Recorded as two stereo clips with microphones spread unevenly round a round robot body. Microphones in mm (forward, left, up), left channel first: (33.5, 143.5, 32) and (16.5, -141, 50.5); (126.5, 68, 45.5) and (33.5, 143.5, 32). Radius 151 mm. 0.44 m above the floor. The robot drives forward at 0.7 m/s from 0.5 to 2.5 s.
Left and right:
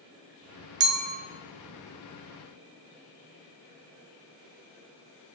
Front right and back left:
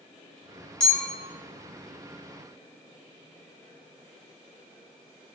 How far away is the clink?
About 0.6 m.